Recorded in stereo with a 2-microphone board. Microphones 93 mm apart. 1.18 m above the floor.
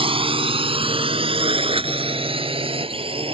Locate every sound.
0.0 s a drone: 70° right (ahead or behind)